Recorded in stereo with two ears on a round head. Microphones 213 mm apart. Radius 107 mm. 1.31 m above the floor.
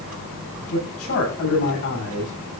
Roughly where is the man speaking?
Left.